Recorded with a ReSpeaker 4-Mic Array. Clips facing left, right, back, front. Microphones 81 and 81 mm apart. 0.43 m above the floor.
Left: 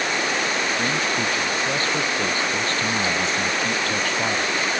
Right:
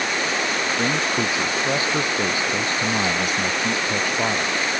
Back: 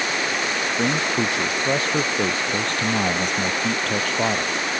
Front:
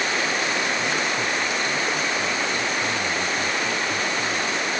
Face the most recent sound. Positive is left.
turn(degrees=-170)